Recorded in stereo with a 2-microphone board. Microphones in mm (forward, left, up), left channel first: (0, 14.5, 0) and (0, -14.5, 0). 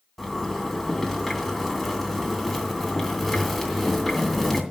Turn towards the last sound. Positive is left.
turn(degrees=0)  # may be behind; listen again after turning